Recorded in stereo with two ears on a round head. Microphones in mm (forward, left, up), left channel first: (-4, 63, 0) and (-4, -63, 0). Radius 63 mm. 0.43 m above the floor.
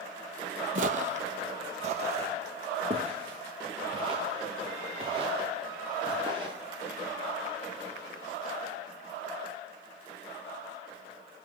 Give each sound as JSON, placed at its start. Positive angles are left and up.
{"t": 0.8, "sound": "footsteps", "side_deg": -55, "distance_m": 0.7}